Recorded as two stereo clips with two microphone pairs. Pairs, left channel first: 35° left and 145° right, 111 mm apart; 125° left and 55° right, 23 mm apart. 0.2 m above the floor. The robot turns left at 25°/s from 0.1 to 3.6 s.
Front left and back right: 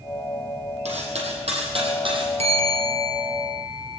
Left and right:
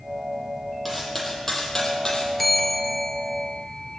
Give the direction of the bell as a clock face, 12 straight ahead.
5 o'clock.